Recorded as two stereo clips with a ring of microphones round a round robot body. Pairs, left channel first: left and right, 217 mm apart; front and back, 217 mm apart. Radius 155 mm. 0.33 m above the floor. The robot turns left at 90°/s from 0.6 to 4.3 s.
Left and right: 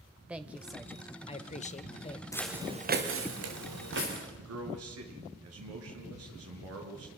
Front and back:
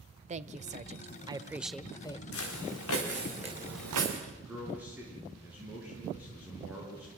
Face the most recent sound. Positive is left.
turn(degrees=-95)